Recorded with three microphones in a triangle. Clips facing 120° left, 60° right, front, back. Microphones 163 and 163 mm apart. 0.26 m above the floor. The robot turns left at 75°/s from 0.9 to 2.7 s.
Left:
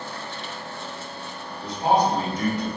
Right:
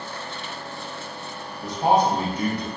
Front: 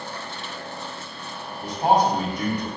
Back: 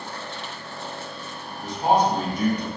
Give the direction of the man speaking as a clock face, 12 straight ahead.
1 o'clock.